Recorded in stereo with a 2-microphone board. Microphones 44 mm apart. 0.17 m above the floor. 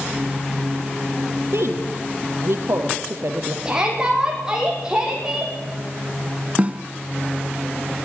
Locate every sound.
1.5 s a woman speaking: 65° right (ahead or behind), 4 m
3.6 s a shout: 15° right (ahead or behind), 8 m
6.6 s a snare drum: 30° right (ahead or behind), 1.5 m